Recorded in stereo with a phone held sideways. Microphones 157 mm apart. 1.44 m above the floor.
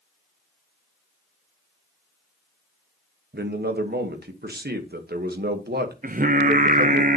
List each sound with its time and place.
3.3 s a man speaking: 75° right (ahead or behind), 1.1 m
6.0 s singing: 55° right (ahead or behind), 0.6 m